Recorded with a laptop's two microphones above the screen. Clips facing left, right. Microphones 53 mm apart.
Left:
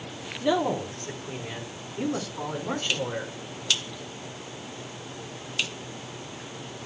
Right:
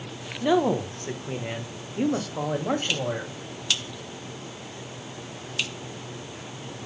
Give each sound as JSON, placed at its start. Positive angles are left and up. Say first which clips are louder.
{"t": 0.4, "sound": "a man speaking", "louder": "right 3 dB", "side_deg": -15, "distance_m": 0.9}